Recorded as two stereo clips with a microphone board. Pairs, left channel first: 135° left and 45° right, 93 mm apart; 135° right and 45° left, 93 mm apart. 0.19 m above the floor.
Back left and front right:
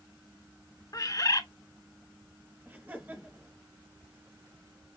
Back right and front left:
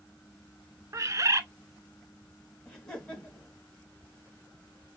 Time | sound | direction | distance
0.9 | a bird | 95° left | 0.5 m
2.6 | laughter | 65° right | 1.6 m